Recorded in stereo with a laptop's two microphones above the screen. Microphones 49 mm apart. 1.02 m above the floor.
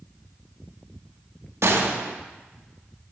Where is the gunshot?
70° right (ahead or behind), 0.6 m.